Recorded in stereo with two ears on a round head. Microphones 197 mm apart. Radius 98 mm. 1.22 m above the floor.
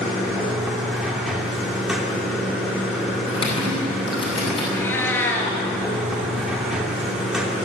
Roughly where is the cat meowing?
Centre.